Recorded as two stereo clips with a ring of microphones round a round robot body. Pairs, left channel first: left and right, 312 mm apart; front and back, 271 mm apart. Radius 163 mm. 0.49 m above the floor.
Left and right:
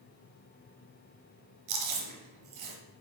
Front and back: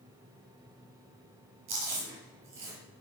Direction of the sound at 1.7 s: 125° right.